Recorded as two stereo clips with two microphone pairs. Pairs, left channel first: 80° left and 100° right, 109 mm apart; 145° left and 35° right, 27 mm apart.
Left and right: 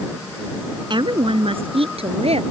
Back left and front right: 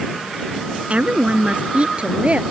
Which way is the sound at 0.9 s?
65° right.